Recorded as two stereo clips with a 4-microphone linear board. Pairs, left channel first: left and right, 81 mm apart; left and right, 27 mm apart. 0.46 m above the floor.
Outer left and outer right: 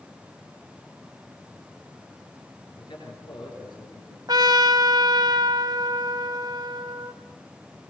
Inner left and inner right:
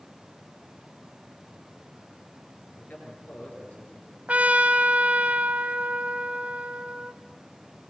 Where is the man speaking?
75° left (ahead or behind), 10 m.